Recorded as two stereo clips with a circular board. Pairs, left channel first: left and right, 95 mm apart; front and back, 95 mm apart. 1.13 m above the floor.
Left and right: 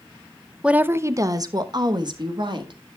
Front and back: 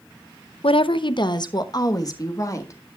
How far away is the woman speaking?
About 0.5 m.